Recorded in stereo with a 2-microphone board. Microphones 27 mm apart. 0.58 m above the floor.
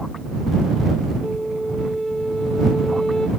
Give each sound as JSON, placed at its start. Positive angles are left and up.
{"t": 1.2, "sound": "a flute", "side_deg": 20}